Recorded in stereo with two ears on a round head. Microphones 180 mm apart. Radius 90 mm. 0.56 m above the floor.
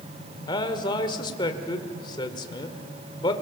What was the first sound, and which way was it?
A man speaking, 25° left (ahead or behind).